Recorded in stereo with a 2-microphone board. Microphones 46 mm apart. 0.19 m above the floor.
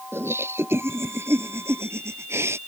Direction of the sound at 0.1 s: 65° right (ahead or behind).